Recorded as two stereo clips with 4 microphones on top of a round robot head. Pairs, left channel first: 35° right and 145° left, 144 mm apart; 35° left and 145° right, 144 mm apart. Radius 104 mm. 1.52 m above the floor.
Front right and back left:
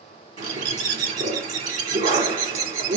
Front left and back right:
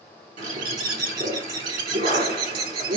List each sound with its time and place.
0.4 s a bird: straight behind, 1.9 m